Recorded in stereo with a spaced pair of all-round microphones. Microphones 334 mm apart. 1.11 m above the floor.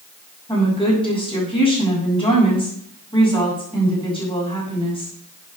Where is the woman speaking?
15° left (ahead or behind), 6.5 m.